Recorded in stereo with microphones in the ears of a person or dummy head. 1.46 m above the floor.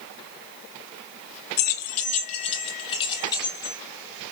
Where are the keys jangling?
50° left (ahead or behind), 0.7 m; by 3.8 s 20° left (ahead or behind), 2 m.